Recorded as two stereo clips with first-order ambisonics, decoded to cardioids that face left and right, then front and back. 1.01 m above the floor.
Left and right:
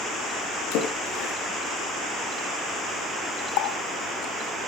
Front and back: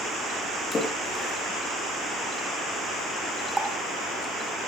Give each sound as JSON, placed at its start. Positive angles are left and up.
{"t": 0.7, "sound": "a splash", "azimuth_deg": 70, "distance_m": 5.0}
{"t": 3.6, "sound": "a running tap", "azimuth_deg": 95, "distance_m": 2.0}